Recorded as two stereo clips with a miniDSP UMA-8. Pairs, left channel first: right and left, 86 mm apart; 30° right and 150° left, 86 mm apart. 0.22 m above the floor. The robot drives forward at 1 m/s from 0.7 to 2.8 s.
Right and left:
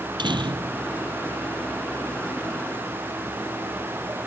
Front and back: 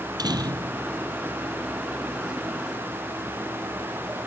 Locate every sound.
0.2 s a door slam: 115° left